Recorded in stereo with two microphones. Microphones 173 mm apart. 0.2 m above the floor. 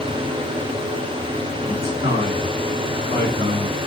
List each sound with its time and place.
1.7 s a man speaking: 45° right (ahead or behind), 2 m